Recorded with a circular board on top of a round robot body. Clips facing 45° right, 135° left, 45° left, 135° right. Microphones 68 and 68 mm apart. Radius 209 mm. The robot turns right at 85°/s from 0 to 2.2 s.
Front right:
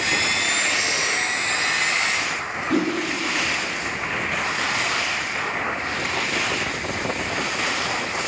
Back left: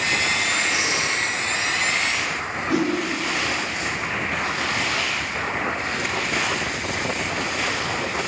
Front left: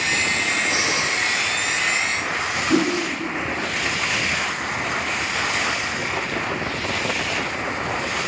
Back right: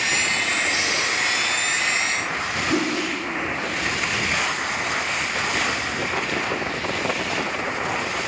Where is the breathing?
40° left, 4 m; by 1.1 s 75° left, 4 m.